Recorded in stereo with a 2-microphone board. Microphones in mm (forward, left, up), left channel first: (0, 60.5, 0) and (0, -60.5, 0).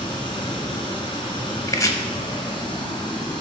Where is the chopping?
30° left (ahead or behind), 0.5 m.